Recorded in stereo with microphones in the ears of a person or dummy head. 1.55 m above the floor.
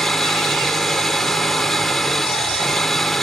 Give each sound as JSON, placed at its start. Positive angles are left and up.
{"t": 0.0, "sound": "an engine running", "side_deg": 0}